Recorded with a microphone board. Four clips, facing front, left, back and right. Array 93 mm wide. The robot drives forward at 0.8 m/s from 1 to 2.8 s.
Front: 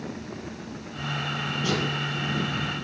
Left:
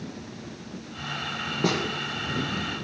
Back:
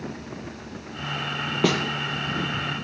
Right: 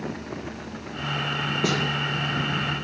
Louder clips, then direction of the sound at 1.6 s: Left 1 dB, back 6 dB; 175° right.